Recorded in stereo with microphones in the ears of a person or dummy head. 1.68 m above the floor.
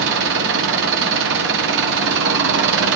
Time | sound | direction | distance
0.0 | an engine running | 60° right (ahead or behind) | 1.0 m